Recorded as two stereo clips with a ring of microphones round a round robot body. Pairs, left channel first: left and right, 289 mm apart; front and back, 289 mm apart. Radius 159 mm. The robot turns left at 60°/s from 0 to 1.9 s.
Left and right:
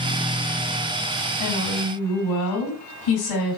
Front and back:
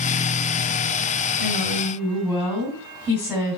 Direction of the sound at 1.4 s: 115° left.